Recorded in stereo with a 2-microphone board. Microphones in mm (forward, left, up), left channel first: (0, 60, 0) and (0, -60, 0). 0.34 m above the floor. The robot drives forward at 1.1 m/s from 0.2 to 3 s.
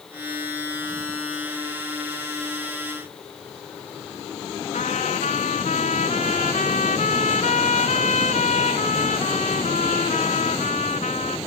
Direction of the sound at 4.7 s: 85° left.